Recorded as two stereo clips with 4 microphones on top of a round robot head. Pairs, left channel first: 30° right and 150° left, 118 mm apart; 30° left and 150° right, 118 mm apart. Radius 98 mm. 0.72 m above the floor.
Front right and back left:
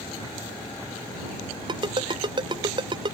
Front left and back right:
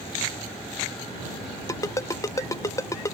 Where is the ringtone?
95° left.